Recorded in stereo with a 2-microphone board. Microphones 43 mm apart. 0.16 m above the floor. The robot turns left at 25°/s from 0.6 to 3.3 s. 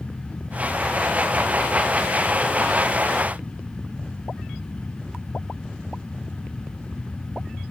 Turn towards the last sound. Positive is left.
No sound to turn to.